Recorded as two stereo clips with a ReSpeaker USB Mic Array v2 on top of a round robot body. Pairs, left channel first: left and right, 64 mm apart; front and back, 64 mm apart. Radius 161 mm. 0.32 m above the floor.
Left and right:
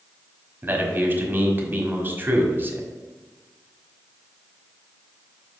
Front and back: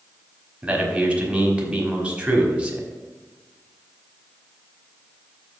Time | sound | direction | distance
0.6 | a man speaking | 120° right | 1.8 m